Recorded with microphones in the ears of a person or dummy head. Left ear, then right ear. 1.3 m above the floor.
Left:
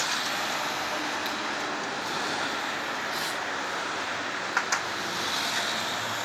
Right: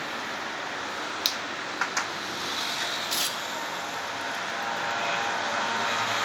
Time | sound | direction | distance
1.2 | a finger snap | 45° right (ahead or behind) | 0.6 m
3.1 | tearing paper | 80° right | 2.0 m